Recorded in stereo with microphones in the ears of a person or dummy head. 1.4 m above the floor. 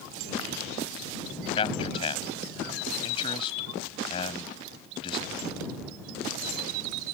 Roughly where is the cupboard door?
I don't hear a cupboard door.